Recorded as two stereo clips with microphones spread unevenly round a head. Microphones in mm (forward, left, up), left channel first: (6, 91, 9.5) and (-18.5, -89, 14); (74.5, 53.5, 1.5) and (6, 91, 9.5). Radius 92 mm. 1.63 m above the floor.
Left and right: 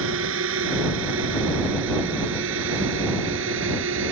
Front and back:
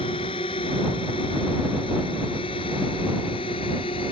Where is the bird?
No bird in this recording.